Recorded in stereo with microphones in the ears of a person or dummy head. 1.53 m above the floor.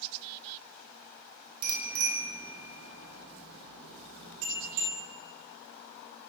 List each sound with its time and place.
1.6 s a bicycle bell: 70° right (ahead or behind), 3 m